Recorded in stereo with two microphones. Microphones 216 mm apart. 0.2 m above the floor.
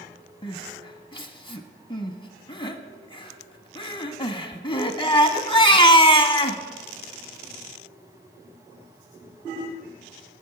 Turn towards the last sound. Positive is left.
turn(degrees=25)  # may be behind; listen again after turning